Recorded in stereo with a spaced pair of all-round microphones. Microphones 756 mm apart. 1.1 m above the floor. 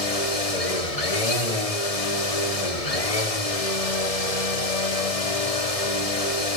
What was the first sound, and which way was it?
A machine running, 50° left (ahead or behind).